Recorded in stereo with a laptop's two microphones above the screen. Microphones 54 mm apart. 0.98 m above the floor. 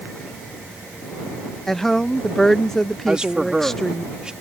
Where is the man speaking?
15° right (ahead or behind).